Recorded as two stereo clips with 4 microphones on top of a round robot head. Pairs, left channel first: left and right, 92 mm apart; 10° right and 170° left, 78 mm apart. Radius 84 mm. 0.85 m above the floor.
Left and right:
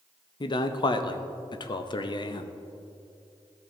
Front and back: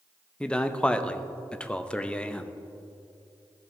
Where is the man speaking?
65° left, 0.7 m.